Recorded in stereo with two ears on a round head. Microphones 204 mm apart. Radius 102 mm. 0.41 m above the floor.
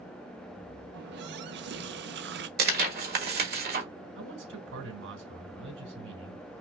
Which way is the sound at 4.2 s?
60° right (ahead or behind).